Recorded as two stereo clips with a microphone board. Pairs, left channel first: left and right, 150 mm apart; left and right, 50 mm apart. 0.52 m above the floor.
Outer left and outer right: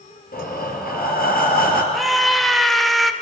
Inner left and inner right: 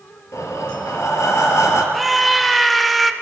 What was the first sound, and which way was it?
Breathing, 85° left.